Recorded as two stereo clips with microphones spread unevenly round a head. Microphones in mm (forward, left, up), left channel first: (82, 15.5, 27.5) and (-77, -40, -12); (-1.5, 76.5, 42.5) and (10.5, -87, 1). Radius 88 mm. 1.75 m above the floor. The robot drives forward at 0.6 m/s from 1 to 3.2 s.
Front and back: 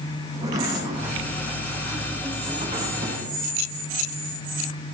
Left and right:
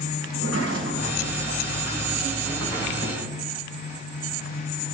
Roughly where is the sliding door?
Right.